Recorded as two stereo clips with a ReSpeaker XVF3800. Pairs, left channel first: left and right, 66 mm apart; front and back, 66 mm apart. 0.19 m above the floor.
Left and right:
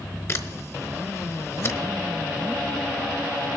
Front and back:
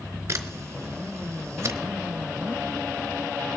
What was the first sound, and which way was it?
A camera shutter, 135° left.